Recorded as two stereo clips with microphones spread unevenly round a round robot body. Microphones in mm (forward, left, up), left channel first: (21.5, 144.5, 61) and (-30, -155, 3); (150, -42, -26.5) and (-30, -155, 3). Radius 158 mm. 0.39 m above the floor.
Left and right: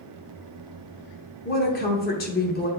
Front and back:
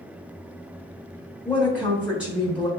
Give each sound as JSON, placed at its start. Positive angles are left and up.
{"t": 1.4, "sound": "a woman speaking", "azimuth_deg": 115, "distance_m": 1.0}